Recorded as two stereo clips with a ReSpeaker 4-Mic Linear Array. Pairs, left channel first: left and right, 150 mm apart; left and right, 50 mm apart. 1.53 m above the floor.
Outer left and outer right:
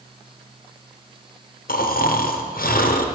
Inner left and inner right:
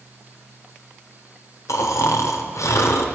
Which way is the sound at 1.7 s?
80° left.